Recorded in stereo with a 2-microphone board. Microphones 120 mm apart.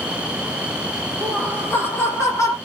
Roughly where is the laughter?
Centre.